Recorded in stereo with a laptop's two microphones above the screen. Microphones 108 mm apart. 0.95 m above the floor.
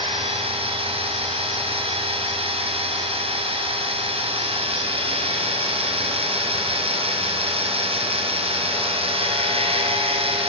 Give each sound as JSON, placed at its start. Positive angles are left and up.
{"t": 0.0, "sound": "a machine running", "side_deg": -65, "distance_m": 5.0}